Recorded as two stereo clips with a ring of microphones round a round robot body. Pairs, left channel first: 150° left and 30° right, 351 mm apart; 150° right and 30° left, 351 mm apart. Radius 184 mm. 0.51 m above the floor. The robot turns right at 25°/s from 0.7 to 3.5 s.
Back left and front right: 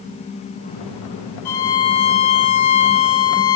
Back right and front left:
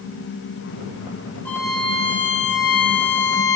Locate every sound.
1.4 s a violin: 125° left, 0.7 m; by 3.6 s 175° left, 0.7 m